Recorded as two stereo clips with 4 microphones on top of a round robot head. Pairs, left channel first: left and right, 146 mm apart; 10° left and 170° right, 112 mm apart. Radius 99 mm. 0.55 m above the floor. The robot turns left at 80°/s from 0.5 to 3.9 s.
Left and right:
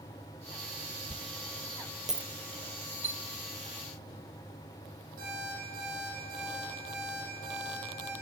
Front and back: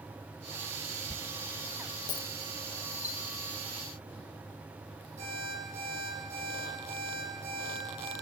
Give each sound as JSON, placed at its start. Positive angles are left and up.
{"t": 1.1, "sound": "a dropped coin", "azimuth_deg": 75, "distance_m": 0.6}
{"t": 3.0, "sound": "a chime", "azimuth_deg": -50, "distance_m": 1.0}
{"t": 5.2, "sound": "an alarm clock", "azimuth_deg": -125, "distance_m": 10.0}